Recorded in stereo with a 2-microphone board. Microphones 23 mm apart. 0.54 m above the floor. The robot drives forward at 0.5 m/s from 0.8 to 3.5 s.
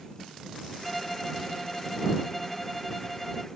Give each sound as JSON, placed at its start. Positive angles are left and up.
{"t": 0.8, "sound": "a violin", "side_deg": 5}